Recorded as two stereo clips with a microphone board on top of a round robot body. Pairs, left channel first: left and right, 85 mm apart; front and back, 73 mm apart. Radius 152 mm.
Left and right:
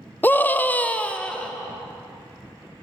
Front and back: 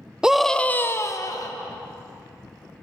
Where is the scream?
115° left, 0.8 m; by 1.5 s 10° left, 1.2 m.